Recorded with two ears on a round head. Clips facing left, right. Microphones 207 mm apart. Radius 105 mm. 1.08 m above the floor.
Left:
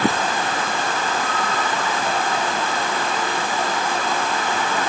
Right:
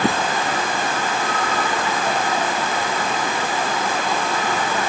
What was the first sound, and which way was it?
Only background noise.